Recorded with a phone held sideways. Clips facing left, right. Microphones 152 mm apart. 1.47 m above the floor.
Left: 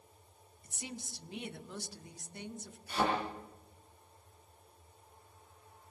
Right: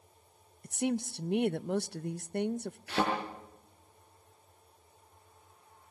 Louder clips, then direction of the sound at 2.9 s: Right 2 dB; 80° right.